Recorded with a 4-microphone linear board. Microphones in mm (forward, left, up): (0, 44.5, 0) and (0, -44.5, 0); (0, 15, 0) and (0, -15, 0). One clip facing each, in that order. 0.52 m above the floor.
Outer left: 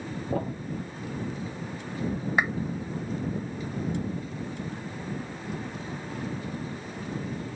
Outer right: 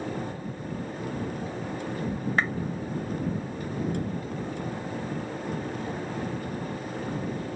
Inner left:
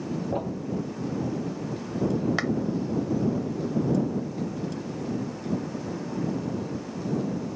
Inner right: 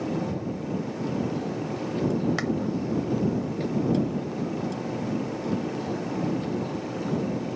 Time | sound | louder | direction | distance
0.3 | a thud | outer left 5 dB, inner left 1 dB | 60° left (ahead or behind) | ?
2.4 | a clap | outer left 1 dB, inner left 1 dB | 15° left (ahead or behind) | ?